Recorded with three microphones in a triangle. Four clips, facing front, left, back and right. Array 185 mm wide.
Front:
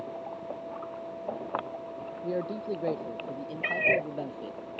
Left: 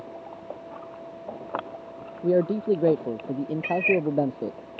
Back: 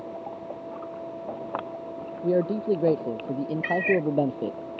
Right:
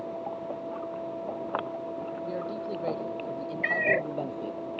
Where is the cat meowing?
45° right.